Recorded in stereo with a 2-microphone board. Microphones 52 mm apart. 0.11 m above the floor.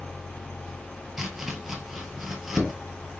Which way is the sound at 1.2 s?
10° right (ahead or behind).